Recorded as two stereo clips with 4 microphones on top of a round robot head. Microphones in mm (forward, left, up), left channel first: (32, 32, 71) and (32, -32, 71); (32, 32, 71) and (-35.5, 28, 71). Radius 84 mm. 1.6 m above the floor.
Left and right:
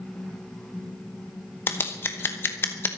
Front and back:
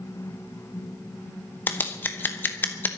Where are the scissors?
55° left, 0.9 m.